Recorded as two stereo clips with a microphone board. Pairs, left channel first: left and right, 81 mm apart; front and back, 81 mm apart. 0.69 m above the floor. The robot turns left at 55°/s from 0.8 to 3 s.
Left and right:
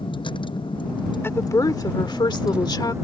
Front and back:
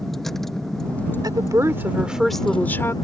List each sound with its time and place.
0.0 s a vehicle: 90° left; by 3.0 s 40° right
1.2 s a woman speaking: 150° left; by 2.9 s 55° left